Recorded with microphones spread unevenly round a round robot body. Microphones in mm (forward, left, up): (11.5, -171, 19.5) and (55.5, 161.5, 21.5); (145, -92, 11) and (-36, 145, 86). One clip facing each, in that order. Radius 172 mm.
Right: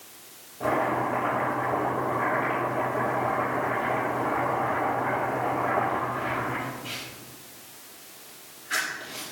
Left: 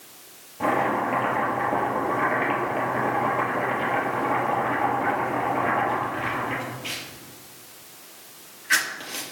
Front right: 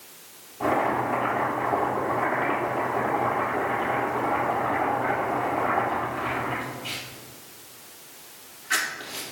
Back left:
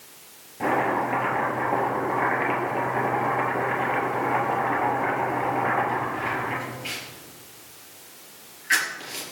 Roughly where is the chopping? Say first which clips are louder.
Left 2 dB, even; left.